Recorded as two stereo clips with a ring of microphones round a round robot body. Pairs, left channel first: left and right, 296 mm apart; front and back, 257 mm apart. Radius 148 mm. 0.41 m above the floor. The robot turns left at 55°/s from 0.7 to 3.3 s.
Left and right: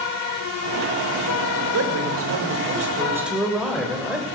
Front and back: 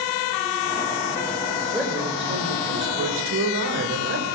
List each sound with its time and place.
1.7 s a man speaking: 90° right, 1.8 m; by 4.3 s straight behind, 1.8 m